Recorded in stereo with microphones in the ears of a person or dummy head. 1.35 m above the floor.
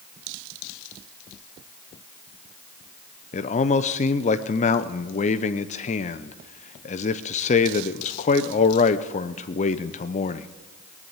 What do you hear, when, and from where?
3.3 s a man speaking: 40° left (ahead or behind), 0.7 m